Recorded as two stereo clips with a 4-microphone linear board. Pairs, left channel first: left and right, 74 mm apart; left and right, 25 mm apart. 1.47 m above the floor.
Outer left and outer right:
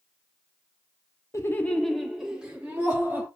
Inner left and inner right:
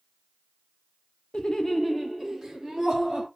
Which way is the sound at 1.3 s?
40° left (ahead or behind).